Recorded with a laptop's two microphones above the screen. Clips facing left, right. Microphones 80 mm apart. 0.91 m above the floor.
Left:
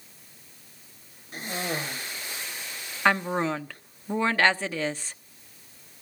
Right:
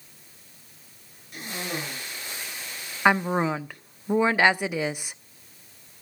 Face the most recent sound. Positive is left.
turn(degrees=-15)  # may be behind; listen again after turning